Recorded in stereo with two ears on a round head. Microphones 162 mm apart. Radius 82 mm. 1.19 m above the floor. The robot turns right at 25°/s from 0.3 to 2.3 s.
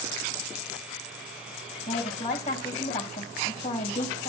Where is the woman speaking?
30° left (ahead or behind), 5 m; by 4.3 s 45° left (ahead or behind), 5 m.